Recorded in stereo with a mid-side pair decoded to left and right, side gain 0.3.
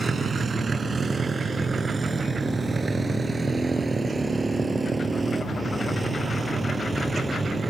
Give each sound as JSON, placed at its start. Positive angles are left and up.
{"t": 0.0, "sound": "a motorcycle", "azimuth_deg": -55}